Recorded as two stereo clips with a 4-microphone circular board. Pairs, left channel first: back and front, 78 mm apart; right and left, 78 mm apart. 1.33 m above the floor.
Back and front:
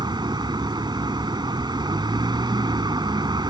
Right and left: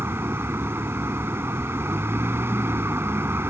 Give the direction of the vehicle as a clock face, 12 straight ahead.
11 o'clock.